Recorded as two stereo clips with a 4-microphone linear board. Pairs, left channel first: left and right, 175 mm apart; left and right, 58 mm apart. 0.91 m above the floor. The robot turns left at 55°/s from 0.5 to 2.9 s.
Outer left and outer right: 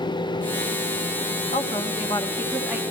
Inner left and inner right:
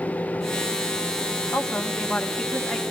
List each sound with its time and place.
1.5 s a woman speaking: 60° left, 1.8 m; by 2.8 s 10° right, 1.8 m